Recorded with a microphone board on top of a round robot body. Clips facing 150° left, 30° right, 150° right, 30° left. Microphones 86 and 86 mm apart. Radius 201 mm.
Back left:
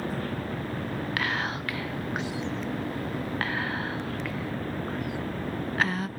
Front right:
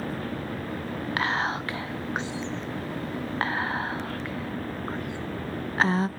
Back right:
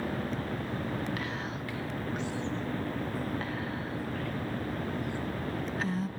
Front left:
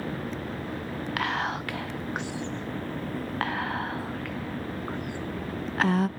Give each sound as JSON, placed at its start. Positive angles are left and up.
{"t": 1.2, "sound": "whispering", "azimuth_deg": 25, "distance_m": 0.5}